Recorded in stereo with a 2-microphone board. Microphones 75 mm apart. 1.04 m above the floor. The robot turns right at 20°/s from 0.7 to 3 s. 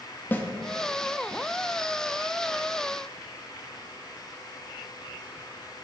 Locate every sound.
0.3 s a snare drum: 25° left (ahead or behind), 1.9 m